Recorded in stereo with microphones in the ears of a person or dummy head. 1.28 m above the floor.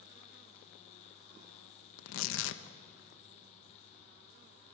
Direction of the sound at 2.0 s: 80° left.